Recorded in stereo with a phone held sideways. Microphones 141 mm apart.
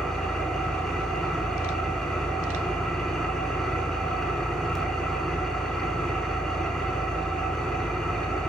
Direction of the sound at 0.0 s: 5° left (ahead or behind).